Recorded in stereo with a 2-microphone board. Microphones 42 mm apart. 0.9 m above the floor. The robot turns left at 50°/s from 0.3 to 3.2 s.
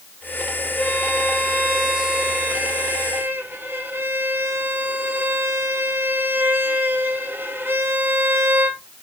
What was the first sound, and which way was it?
A violin, 60° left.